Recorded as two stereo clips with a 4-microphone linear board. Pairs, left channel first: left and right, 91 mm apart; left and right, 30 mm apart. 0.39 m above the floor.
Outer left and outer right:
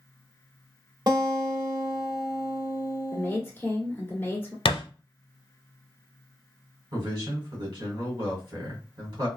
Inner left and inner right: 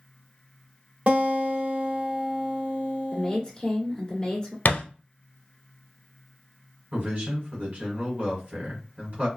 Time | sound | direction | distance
1.1 | a guitar | 50° right (ahead or behind) | 0.9 m
3.1 | a woman speaking | 20° left (ahead or behind) | 1.5 m
4.7 | a thud | 70° left (ahead or behind) | 0.6 m
6.9 | a man speaking | 55° right (ahead or behind) | 1.6 m